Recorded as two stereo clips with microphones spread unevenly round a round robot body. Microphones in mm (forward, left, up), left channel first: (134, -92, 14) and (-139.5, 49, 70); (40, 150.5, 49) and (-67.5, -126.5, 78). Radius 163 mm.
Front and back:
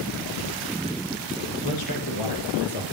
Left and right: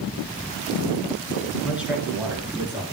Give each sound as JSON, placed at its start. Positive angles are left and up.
{"t": 1.6, "sound": "a man speaking", "azimuth_deg": -25, "distance_m": 6.0}